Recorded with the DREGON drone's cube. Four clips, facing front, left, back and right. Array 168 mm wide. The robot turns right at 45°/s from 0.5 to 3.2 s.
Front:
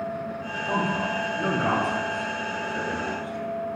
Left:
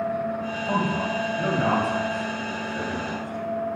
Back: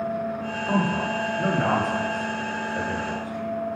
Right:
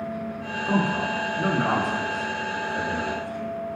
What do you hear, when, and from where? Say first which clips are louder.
0.7 s a man speaking: right 2 dB, back 2 dB; 95° right, 1.9 m; by 3.8 s 20° left, 1.9 m